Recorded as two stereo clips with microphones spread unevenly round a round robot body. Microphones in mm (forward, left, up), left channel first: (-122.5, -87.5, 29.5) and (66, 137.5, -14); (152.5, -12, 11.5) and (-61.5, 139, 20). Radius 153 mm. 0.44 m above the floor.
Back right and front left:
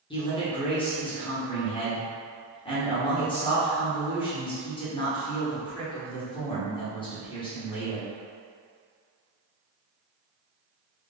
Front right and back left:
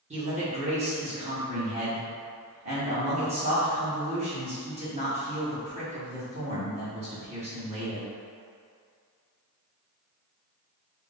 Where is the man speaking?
160° left, 1.3 m.